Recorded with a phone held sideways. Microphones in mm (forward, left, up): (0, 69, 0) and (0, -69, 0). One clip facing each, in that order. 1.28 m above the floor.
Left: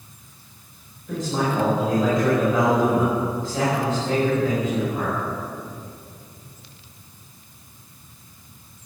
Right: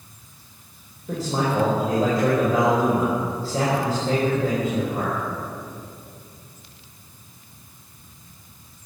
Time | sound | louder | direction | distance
1.1 | a man speaking | even | 40° right (ahead or behind) | 4.5 m